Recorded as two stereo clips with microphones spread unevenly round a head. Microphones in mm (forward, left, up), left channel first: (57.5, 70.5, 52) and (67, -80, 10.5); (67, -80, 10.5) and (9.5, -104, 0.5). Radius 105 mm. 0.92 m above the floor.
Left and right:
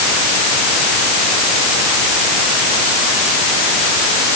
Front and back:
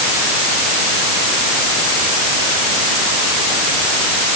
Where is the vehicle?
I don't hear a vehicle.